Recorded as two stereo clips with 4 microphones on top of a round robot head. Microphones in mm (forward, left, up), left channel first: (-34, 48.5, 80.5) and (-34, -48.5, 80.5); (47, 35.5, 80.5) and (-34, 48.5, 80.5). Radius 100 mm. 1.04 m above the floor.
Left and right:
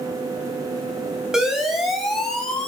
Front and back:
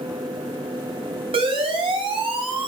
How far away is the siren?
About 6.5 m.